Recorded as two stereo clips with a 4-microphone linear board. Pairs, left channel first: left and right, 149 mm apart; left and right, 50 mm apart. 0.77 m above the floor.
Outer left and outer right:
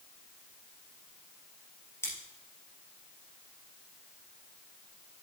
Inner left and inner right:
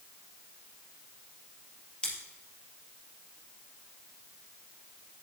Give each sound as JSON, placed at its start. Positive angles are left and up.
{"t": 2.0, "sound": "scissors", "side_deg": 20, "distance_m": 3.0}